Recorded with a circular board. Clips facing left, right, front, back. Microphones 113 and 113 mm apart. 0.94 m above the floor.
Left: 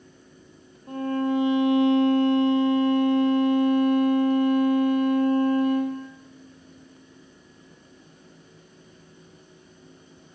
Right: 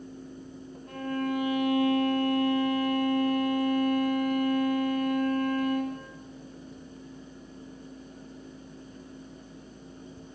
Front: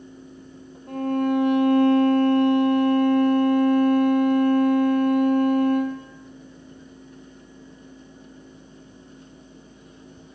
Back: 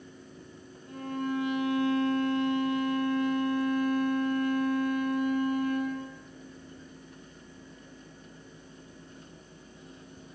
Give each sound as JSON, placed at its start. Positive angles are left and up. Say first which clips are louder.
{"t": 0.9, "sound": "a violin", "louder": "left 6 dB, front 10 dB", "azimuth_deg": 25, "distance_m": 4.0}